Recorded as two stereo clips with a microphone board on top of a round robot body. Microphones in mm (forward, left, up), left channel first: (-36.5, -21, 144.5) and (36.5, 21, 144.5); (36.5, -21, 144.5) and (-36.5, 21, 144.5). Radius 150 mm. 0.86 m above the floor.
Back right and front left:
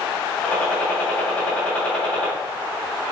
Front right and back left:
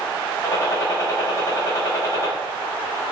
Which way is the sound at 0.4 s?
75° right.